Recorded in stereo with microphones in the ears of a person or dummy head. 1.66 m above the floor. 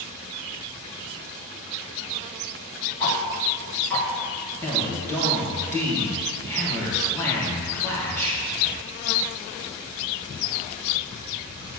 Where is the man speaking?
15° left (ahead or behind), 2.5 m.